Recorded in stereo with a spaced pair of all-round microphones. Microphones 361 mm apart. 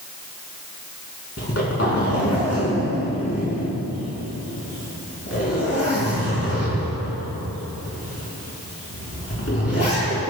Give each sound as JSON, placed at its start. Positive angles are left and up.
{"t": 1.4, "sound": "a zipper", "side_deg": 40, "distance_m": 4.5}